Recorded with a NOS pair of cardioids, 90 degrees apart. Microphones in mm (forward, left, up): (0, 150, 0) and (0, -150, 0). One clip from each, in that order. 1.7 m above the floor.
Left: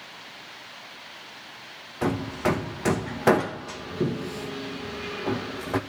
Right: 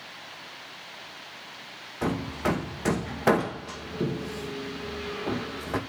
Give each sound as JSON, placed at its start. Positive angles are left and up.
{"t": 2.0, "sound": "hammering", "azimuth_deg": 10, "distance_m": 2.0}